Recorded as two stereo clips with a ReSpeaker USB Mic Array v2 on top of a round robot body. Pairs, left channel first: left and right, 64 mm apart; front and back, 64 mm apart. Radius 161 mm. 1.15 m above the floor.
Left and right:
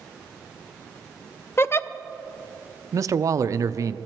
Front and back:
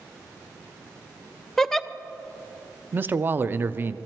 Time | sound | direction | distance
1.6 | a giggle | 75° left | 0.7 m
2.9 | a man speaking | 125° right | 0.5 m